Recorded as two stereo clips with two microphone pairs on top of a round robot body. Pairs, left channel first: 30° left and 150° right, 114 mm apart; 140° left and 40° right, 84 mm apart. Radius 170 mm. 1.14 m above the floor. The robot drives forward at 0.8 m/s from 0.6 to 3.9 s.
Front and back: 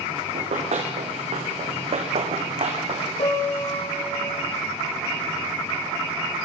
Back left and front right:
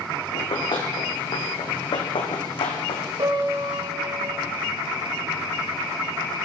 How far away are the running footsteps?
About 4.5 m.